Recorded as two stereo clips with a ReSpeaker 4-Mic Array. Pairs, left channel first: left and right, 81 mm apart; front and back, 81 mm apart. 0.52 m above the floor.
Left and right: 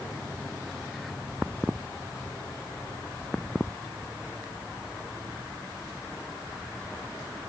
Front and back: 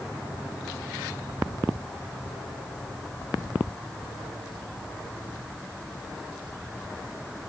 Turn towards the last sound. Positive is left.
No sound to turn to.